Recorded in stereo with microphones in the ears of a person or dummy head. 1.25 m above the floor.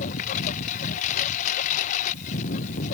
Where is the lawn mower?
45° left (ahead or behind).